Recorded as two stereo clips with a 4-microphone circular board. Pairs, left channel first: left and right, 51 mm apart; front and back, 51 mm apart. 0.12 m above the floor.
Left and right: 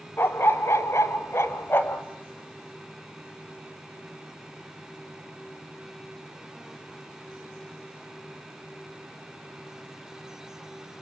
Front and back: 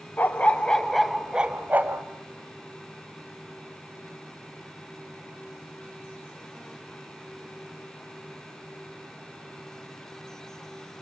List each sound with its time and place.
0.2 s a dog barking: 55° left, 1.3 m; by 2.0 s 135° left, 1.3 m